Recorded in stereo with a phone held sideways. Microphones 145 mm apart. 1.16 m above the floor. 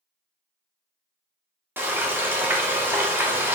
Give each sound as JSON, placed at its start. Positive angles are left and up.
{"t": 1.8, "sound": "frying", "side_deg": -15, "distance_m": 0.8}